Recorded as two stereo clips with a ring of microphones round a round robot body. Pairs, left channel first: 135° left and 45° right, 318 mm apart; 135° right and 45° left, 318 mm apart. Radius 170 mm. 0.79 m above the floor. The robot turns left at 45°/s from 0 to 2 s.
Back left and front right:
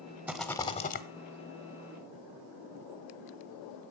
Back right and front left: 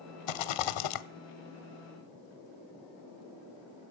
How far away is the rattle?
About 0.8 m.